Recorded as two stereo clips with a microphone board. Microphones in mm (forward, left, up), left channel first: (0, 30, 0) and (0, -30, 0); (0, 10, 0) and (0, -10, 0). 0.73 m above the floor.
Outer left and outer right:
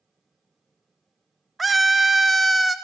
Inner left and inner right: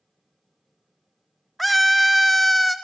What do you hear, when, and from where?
1.6 s a scream: centre (ahead or behind), 0.9 m